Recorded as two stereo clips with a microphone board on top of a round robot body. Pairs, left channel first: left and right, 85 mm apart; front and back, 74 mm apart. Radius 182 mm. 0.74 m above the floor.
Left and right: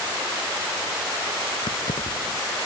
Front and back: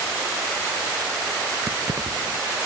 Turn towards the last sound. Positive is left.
turn(degrees=120)